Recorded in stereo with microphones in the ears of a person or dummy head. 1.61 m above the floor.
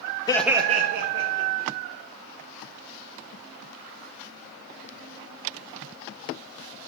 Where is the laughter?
25° left (ahead or behind), 0.5 m; by 1.7 s 65° right (ahead or behind), 1.9 m.